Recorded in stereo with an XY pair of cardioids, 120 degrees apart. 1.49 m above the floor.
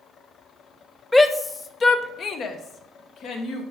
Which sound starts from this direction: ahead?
A shout, at 1.1 s.